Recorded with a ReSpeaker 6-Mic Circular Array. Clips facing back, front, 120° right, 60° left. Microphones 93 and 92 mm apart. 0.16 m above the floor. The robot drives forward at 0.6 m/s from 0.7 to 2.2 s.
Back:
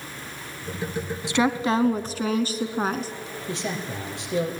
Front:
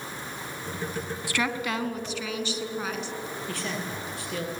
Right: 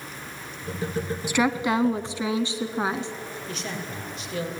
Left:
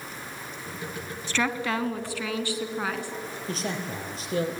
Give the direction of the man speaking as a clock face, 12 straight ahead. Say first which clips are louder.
Back 5 dB, left 4 dB; 8 o'clock.